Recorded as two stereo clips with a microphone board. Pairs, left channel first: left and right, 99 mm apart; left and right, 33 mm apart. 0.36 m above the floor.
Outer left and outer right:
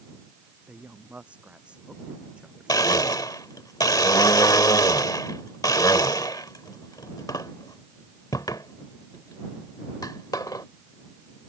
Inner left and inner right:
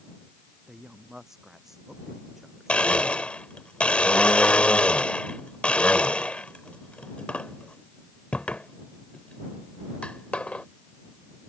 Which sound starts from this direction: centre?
A woman speaking, at 0.7 s.